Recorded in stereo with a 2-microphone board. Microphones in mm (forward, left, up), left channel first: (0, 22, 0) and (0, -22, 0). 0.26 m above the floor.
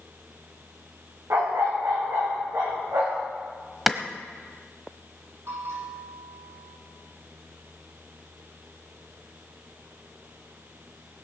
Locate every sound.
1.3 s a dog barking: 90° right, 5.5 m; by 3.3 s 75° right (ahead or behind), 4.5 m
3.9 s a clap: 5° right (ahead or behind), 1.0 m
5.5 s a bell: 85° right, 8 m